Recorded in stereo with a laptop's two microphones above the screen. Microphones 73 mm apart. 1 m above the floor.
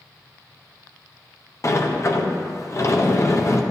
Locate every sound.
1.6 s a sliding door: 40° left (ahead or behind), 0.7 m